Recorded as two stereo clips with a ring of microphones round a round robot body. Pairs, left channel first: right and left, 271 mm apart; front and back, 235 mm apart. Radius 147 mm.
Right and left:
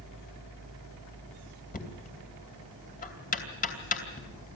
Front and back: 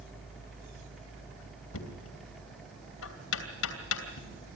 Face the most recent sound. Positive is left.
turn(degrees=-30)